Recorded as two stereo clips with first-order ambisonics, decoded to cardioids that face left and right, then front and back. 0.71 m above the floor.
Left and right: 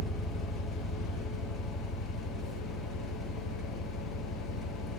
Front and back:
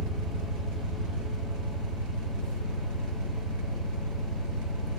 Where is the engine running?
Straight behind, 1.1 m.